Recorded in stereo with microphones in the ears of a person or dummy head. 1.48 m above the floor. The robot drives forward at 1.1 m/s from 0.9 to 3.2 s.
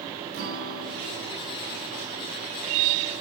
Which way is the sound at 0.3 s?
75° right (ahead or behind).